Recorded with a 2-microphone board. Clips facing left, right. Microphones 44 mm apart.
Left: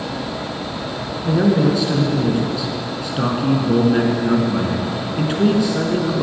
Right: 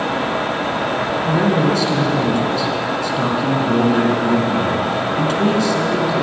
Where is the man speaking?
10° left (ahead or behind), 2.5 m.